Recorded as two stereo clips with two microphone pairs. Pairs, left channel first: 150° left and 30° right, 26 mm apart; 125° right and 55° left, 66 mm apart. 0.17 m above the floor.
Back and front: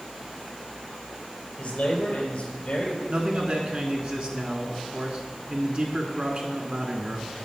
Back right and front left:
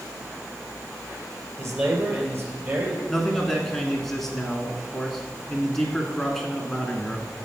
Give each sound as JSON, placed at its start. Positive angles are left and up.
{"t": 1.6, "sound": "a man speaking", "azimuth_deg": 105, "distance_m": 3.0}
{"t": 3.1, "sound": "a man speaking", "azimuth_deg": -40, "distance_m": 1.7}